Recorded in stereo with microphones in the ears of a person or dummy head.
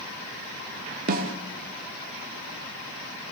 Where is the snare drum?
45° right (ahead or behind), 1.9 m.